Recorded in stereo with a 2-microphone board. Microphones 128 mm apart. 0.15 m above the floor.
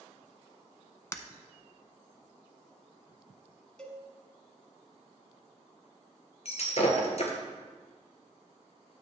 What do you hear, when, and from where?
1.1 s breaking glass: 25° left (ahead or behind), 0.6 m
3.8 s a cowbell: 5° left (ahead or behind), 1.2 m
6.5 s breaking glass: 60° left (ahead or behind), 1.4 m